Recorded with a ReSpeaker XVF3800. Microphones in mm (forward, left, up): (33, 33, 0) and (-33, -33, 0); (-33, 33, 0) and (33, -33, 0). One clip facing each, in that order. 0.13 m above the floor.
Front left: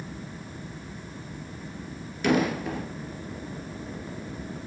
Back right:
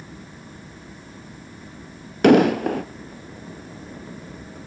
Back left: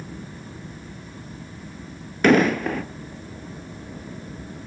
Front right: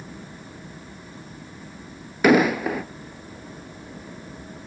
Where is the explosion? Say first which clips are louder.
Back right 10 dB, even; 125° right, 1.0 m.